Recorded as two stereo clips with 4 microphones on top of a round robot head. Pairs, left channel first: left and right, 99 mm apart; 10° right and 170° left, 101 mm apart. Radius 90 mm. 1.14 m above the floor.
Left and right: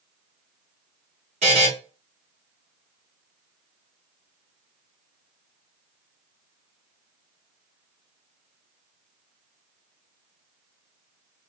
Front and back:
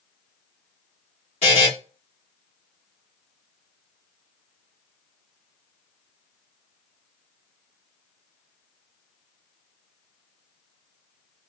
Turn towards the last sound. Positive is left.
turn(degrees=-55)